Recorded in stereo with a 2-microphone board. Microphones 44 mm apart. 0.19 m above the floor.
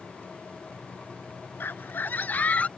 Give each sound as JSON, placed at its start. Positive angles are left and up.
{"t": 1.6, "sound": "a scream", "side_deg": 55}